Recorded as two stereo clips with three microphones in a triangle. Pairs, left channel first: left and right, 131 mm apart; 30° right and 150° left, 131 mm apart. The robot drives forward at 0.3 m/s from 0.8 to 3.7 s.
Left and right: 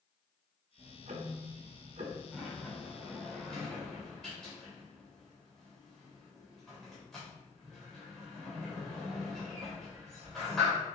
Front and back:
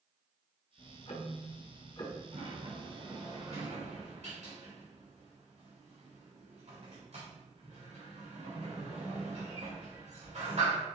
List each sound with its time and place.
0.8 s ticking: 70° right, 1.3 m; by 2.2 s 90° right, 1.3 m
2.3 s a sliding door: 175° left, 3 m